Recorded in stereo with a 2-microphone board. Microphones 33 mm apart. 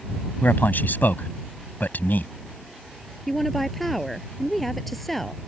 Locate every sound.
0.4 s a man speaking: 65° left (ahead or behind)
3.3 s a woman speaking: 5° left (ahead or behind)